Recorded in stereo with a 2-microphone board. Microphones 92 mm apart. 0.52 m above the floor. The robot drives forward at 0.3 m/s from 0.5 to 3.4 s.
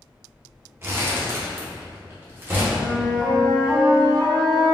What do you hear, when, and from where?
0.8 s crumpling: 30° right (ahead or behind), 0.7 m; by 2.6 s 25° right (ahead or behind), 0.9 m
2.7 s a flute: 5° right (ahead or behind), 0.7 m